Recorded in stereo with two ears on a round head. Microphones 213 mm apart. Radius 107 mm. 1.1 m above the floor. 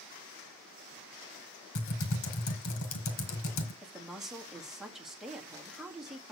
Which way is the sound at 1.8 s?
55° left (ahead or behind).